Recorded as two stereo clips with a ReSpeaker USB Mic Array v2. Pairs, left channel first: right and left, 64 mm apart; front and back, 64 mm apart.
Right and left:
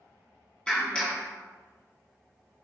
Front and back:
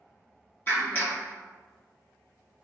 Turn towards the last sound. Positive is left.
turn(degrees=-25)